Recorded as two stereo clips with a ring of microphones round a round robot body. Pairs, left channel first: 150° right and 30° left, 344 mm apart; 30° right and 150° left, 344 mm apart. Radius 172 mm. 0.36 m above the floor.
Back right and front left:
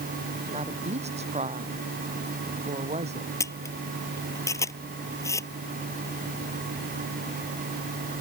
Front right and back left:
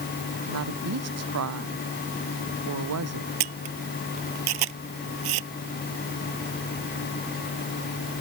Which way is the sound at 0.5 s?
100° left.